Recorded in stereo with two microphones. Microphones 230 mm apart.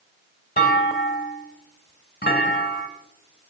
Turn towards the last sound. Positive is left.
turn(degrees=40)  # may be behind; listen again after turning